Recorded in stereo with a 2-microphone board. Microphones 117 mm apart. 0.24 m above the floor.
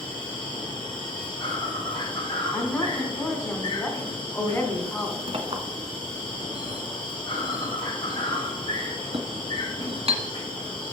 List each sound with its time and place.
0.0 s an insect: 40° left (ahead or behind), 4 m
2.5 s a woman speaking: 20° left (ahead or behind), 2 m
5.3 s a clink: 55° right (ahead or behind), 1.5 m